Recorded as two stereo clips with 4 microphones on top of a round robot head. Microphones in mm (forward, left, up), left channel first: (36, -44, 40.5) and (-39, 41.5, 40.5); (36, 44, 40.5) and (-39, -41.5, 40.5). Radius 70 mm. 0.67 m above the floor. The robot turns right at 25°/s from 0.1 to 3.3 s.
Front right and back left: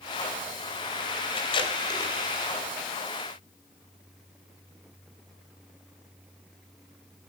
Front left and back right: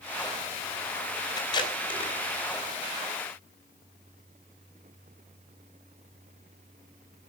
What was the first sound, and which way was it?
Tape being pulled, 5° right.